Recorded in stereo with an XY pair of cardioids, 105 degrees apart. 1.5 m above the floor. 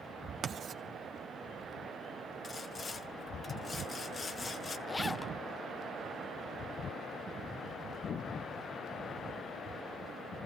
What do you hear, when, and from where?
0.4 s writing: 55° right, 1.4 m
2.4 s sawing: 35° left, 1.1 m
4.9 s a zipper: 20° left, 0.6 m